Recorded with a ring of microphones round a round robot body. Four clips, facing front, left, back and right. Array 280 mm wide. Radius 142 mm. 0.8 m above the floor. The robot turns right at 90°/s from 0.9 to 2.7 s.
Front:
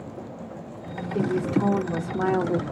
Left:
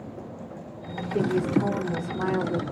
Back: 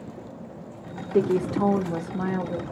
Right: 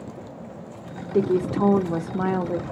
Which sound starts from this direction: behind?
A woman speaking, at 1.1 s.